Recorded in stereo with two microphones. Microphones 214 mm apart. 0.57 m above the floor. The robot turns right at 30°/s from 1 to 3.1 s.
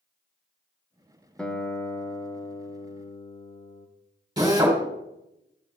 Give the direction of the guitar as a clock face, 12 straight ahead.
12 o'clock.